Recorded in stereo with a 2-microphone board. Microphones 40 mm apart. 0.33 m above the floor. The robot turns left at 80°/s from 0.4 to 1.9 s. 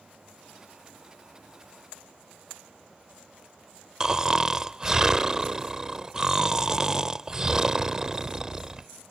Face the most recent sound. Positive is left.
turn(degrees=-15)  # may be behind; listen again after turning